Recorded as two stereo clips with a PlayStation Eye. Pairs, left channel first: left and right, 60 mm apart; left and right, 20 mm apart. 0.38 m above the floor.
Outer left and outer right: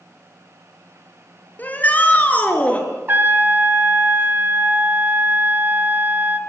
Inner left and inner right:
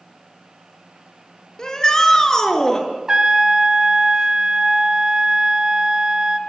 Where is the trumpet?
40° right (ahead or behind), 1.8 m.